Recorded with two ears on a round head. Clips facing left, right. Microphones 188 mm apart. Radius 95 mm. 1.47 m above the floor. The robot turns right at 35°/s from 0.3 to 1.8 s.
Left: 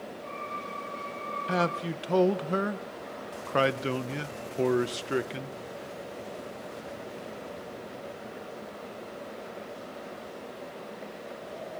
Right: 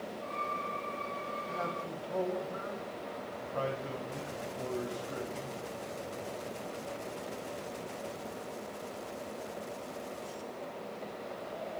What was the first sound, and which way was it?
A man speaking, 85° left.